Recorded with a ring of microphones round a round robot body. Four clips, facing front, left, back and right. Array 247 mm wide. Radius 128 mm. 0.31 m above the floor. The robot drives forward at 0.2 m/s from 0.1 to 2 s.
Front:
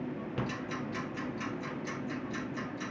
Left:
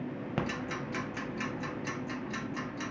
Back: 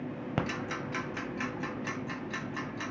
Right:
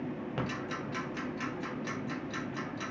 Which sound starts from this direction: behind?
Ticking, at 0.4 s.